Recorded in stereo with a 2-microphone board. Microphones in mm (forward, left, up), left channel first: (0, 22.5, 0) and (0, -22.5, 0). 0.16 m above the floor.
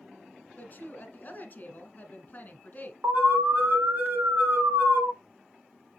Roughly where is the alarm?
Right.